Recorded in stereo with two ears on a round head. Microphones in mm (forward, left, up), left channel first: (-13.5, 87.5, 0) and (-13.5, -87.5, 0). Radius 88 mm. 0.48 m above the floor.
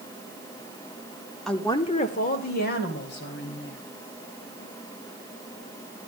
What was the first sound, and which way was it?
A woman speaking, centre (ahead or behind).